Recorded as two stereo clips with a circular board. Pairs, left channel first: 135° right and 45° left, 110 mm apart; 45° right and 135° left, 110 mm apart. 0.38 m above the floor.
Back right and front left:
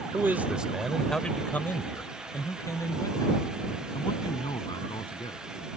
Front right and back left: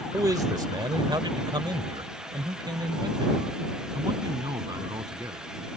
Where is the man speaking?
100° left; by 5.5 s 175° right.